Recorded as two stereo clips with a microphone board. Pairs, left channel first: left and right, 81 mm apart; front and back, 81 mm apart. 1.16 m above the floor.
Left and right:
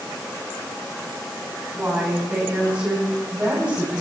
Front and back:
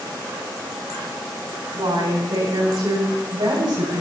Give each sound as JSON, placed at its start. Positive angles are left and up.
{"t": 1.7, "sound": "a woman speaking", "azimuth_deg": -170, "distance_m": 10.0}